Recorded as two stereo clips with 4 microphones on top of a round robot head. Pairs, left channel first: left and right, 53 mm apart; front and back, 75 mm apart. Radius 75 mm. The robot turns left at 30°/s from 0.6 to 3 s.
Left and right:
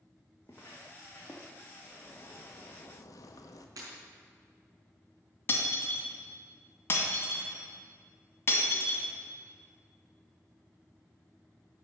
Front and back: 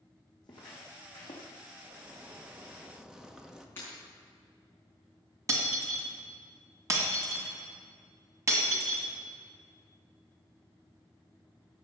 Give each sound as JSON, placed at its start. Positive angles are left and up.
{"t": 0.4, "sound": "footsteps", "azimuth_deg": 20, "distance_m": 2.5}
{"t": 1.8, "sound": "a zipper", "azimuth_deg": 135, "distance_m": 1.1}
{"t": 3.8, "sound": "breaking glass", "azimuth_deg": -65, "distance_m": 4.5}
{"t": 5.5, "sound": "breaking glass", "azimuth_deg": 135, "distance_m": 2.5}